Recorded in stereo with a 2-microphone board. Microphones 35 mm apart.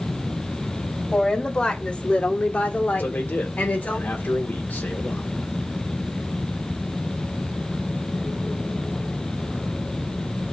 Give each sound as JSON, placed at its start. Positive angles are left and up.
{"t": 1.1, "sound": "a woman speaking", "side_deg": 25, "distance_m": 1.8}
{"t": 3.0, "sound": "a man speaking", "side_deg": 75, "distance_m": 2.0}